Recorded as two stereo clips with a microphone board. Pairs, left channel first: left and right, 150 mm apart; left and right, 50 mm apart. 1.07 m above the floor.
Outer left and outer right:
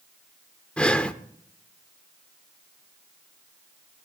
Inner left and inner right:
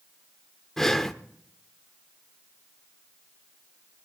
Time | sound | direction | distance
0.8 | breathing | 5° left (ahead or behind) | 0.9 m